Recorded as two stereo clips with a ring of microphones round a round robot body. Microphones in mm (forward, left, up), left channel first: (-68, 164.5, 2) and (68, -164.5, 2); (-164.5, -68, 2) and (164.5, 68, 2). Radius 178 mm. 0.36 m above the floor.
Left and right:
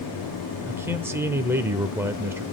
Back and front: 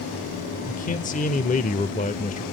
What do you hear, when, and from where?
0.7 s a man speaking: 140° right, 0.8 m